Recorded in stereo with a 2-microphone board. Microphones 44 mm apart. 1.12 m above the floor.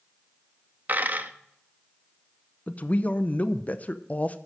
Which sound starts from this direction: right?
A dropped coin, at 0.9 s.